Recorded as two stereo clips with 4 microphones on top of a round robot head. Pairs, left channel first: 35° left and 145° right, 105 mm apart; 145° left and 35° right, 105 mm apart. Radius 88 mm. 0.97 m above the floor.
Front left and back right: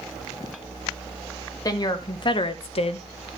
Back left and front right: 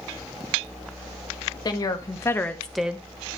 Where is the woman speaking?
90° left, 1.4 m; by 3.1 s 30° left, 0.8 m.